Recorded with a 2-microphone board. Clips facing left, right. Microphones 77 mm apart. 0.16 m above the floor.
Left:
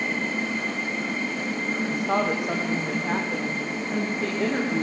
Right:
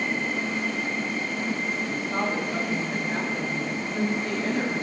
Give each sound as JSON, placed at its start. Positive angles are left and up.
{"t": 1.9, "sound": "a woman speaking", "side_deg": 80, "distance_m": 8.5}